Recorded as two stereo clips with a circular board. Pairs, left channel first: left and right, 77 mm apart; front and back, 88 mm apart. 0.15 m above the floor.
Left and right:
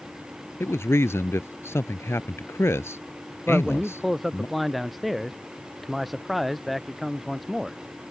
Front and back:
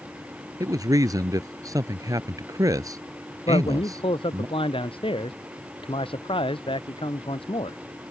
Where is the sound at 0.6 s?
140° left.